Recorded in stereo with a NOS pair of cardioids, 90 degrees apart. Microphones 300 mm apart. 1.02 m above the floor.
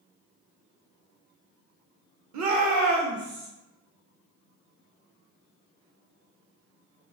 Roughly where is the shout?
Right.